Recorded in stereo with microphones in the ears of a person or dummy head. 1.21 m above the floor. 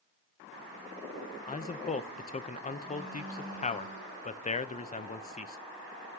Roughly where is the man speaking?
Left.